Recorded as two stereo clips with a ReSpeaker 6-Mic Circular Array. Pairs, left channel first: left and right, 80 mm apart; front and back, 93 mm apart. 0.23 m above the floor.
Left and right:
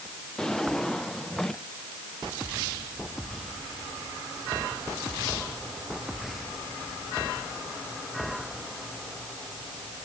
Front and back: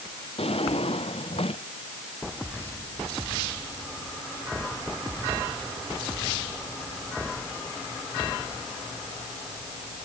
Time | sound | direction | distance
0.4 | a drawer | 5° left | ?